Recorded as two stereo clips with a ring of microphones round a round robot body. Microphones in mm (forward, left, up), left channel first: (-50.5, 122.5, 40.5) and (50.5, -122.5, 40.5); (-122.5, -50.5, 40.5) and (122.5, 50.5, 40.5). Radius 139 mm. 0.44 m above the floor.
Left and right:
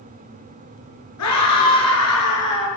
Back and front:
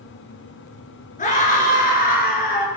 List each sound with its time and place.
1.2 s a scream: 140° left, 9 m; by 2.7 s 145° left, 9 m